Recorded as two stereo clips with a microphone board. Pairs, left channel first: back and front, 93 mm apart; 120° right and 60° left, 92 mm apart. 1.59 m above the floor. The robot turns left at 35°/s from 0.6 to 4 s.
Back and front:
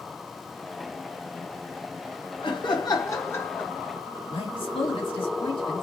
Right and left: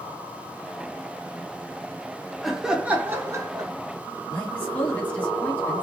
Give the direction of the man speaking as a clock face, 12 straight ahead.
6 o'clock.